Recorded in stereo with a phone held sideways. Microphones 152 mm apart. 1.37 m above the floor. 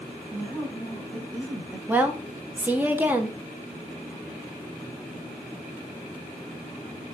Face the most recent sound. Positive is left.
turn(degrees=-10)  # may be behind; listen again after turning